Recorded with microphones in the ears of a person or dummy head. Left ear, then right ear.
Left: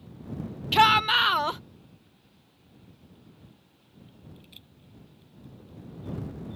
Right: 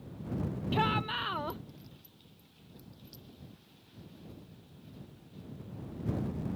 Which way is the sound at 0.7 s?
65° left (ahead or behind).